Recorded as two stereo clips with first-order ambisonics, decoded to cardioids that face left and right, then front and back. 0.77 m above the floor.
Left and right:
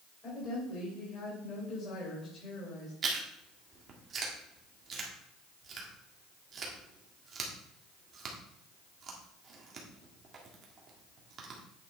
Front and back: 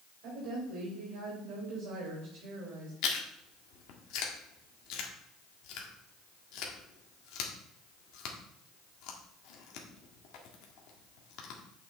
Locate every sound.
0.2 s a woman speaking: 150° left, 3.5 m
3.0 s chewing: 30° right, 1.6 m